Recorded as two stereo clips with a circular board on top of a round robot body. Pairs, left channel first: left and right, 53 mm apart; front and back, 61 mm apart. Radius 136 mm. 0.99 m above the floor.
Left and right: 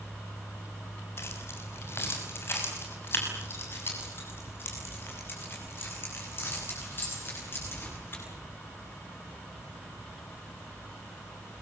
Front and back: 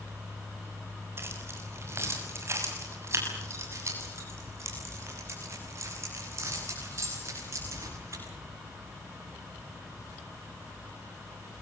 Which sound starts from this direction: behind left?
Keys jangling, at 1.2 s.